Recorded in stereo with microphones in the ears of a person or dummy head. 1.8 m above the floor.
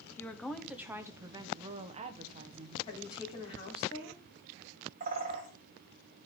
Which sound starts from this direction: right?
A bird, at 5.0 s.